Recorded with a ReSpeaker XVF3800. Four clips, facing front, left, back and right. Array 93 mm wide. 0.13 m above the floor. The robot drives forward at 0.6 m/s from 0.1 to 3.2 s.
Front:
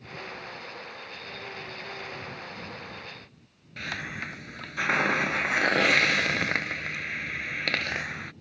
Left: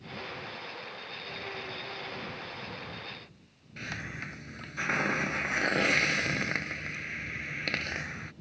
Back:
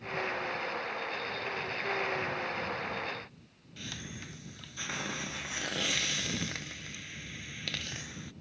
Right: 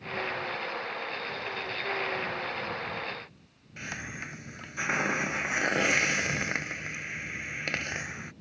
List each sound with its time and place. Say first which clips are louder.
3.8 s a hiss: right 1 dB, front 10 dB; 10° right